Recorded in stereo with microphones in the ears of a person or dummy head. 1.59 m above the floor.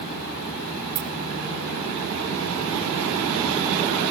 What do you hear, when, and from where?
0.9 s keys jangling: 35° right (ahead or behind), 2 m